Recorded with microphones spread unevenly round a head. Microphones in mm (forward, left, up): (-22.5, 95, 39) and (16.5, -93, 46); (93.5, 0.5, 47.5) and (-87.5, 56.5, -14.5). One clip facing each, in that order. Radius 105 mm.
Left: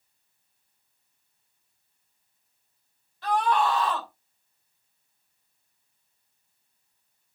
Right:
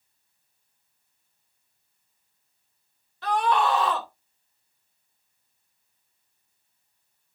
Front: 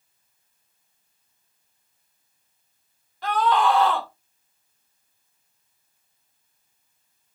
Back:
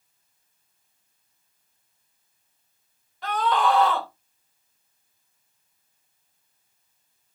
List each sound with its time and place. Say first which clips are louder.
3.2 s a scream: right 1 dB, front 2 dB; 110° right, 3.5 m